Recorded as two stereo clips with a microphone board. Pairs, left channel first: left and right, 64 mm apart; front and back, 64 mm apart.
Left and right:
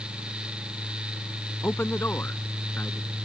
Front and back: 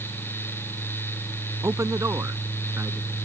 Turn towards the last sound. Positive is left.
turn(degrees=140)